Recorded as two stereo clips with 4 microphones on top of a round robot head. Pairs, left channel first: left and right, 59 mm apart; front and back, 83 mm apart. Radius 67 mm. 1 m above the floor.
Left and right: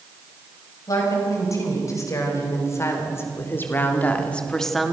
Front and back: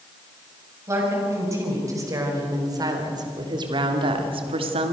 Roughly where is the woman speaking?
Behind left.